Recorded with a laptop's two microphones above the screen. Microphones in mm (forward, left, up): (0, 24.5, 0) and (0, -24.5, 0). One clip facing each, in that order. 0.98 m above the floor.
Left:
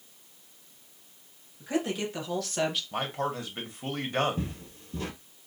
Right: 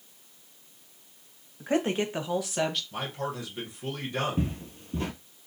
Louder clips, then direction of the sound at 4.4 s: Right 4 dB; 25° right (ahead or behind).